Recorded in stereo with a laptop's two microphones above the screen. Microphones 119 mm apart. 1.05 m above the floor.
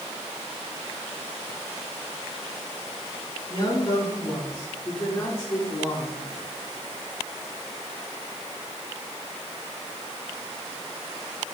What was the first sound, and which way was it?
A man speaking, 35° left (ahead or behind).